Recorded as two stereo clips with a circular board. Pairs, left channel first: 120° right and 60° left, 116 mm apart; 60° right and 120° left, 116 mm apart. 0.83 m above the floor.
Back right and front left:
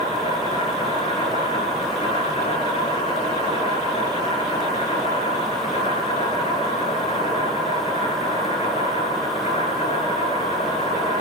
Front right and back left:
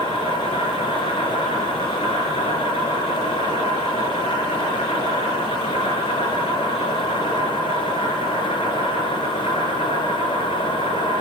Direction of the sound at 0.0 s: 90° right.